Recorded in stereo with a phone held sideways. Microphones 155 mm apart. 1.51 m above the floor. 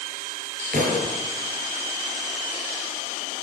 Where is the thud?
65° right (ahead or behind), 8.5 m.